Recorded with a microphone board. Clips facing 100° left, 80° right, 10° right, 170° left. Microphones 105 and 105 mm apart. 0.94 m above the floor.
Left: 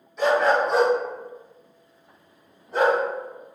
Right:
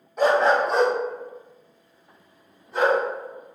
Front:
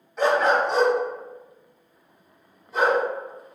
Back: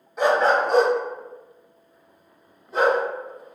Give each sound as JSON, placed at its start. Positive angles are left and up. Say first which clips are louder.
{"t": 0.2, "sound": "a dog barking", "louder": "right 1 dB, back 1 dB", "azimuth_deg": -115, "distance_m": 0.7}